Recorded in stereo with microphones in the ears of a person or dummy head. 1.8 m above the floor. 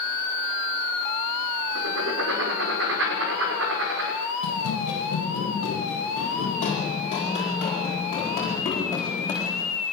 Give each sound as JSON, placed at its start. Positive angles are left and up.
{"t": 1.8, "sound": "writing", "side_deg": -80, "distance_m": 4.5}
{"t": 4.4, "sound": "running footsteps", "side_deg": 55, "distance_m": 3.0}